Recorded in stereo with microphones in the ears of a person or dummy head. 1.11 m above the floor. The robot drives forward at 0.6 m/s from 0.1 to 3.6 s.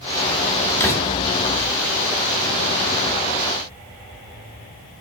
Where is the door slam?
15° left (ahead or behind), 1.9 m.